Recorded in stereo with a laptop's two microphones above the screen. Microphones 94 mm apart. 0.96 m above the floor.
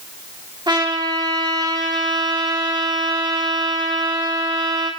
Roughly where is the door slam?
No door slam in this recording.